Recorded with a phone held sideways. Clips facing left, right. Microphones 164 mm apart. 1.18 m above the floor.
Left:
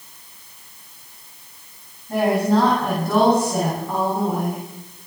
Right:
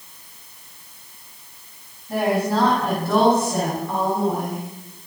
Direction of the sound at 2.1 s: 10° right (ahead or behind).